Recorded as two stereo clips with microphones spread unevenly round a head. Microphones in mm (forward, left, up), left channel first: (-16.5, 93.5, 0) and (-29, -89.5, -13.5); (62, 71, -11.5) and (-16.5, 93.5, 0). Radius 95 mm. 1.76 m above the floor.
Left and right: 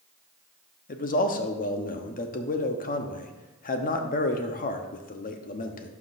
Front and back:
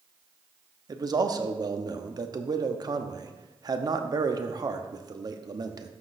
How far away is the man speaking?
About 0.9 m.